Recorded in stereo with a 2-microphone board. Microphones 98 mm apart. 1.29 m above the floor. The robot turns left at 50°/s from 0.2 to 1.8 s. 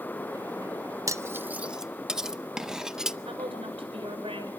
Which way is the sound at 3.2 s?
70° right (ahead or behind).